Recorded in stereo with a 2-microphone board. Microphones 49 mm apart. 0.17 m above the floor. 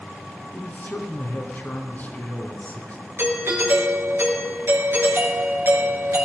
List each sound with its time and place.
0.5 s a man speaking: 35° left (ahead or behind), 2.5 m
3.2 s a doorbell: 60° right (ahead or behind), 3.5 m